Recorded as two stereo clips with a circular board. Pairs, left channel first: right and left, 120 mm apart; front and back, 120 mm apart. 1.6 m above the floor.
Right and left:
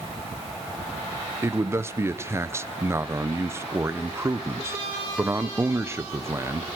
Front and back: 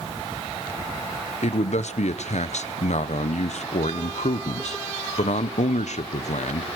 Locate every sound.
1.4 s a man speaking: 20° left, 0.9 m